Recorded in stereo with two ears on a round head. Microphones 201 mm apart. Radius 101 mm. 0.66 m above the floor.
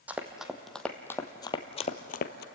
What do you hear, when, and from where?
0.1 s running footsteps: 5° right (ahead or behind), 1.8 m; by 2.5 s 45° left (ahead or behind), 1.2 m